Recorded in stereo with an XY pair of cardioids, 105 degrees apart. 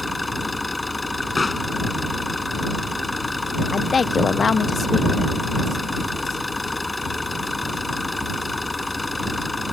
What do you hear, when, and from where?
0.0 s an engine running: 15° left
1.4 s a pop: 25° left
3.7 s a woman speaking: 35° left